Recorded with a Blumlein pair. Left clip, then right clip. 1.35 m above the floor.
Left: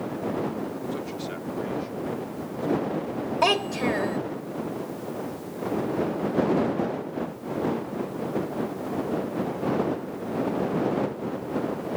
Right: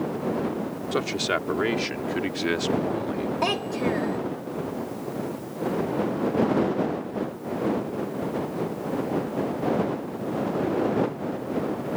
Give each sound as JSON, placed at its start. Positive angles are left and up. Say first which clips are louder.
{"t": 0.9, "sound": "a man speaking", "louder": "right 8 dB", "azimuth_deg": -30}
{"t": 3.4, "sound": "a child speaking", "louder": "left 4 dB", "azimuth_deg": 15}